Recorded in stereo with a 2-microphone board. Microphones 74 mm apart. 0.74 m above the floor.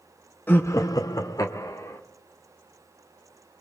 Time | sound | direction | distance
0.5 | laughter | 25° left (ahead or behind) | 0.6 m